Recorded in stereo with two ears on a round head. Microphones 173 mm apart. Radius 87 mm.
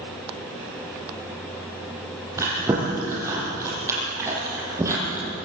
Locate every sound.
2.4 s chewing: 15° right (ahead or behind), 7.5 m